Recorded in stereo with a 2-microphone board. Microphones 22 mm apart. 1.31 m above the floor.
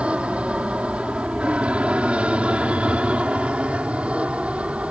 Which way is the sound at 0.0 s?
60° right (ahead or behind).